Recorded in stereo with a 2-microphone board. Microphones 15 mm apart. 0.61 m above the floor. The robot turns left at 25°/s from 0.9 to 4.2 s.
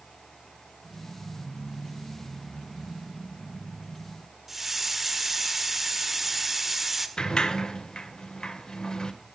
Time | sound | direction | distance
4.5 | a hiss | 20° right (ahead or behind) | 1.6 m
7.2 | a sliding door | 55° left (ahead or behind) | 1.7 m